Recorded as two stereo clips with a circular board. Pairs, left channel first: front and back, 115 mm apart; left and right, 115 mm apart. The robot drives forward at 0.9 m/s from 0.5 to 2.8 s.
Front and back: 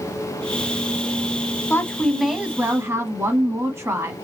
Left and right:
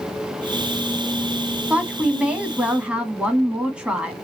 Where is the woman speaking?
25° right, 1.2 m; by 4.2 s 155° right, 1.2 m.